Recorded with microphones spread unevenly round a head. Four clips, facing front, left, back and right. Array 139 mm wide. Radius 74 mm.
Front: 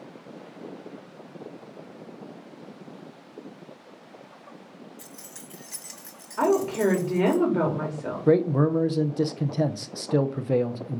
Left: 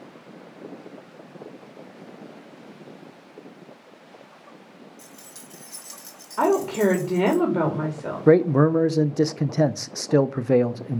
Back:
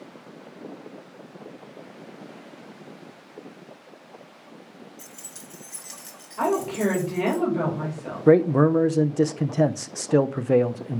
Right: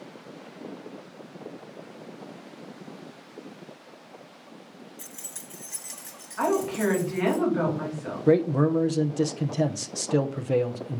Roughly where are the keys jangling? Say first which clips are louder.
Even, even; ahead right.